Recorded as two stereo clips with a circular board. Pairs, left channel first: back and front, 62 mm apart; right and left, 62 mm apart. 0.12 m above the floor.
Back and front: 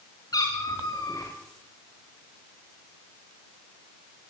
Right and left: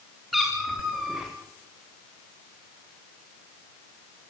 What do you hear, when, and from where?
0.3 s a cat meowing: straight behind, 8.5 m; by 1.3 s 175° left, 8.5 m